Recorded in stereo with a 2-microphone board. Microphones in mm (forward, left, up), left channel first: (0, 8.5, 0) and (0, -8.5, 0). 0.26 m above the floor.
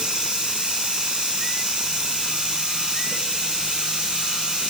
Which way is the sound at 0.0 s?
80° right.